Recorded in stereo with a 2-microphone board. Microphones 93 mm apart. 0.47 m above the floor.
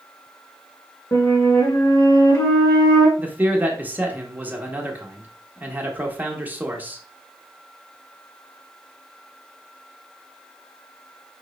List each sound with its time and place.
1.1 s a flute: 35° left (ahead or behind), 1.3 m
3.2 s a man speaking: 20° right (ahead or behind), 0.7 m